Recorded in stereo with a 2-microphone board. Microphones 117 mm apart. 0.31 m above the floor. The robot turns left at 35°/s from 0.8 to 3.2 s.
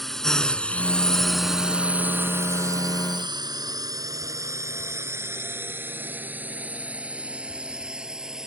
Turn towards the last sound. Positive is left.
turn(degrees=-5)  # may be behind; listen again after turning